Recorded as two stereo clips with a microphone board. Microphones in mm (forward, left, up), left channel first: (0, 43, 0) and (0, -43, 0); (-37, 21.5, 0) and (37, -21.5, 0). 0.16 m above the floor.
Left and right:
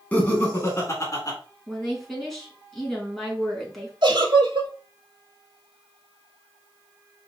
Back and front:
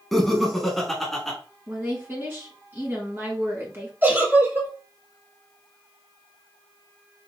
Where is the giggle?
90° right, 1.0 m.